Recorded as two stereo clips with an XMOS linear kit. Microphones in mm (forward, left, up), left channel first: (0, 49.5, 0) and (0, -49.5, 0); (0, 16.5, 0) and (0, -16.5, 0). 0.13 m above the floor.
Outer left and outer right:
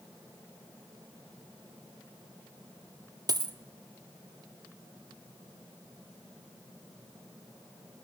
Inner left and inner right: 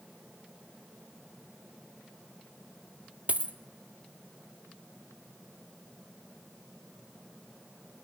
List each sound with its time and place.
3.3 s a dropped coin: 45° right (ahead or behind), 0.8 m